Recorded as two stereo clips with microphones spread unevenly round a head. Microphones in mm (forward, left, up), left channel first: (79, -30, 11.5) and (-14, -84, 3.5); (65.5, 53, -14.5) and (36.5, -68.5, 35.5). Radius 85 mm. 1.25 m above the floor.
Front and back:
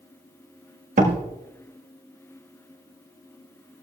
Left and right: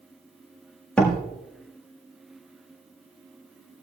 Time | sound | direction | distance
1.0 | a door slam | 165° left | 1.4 m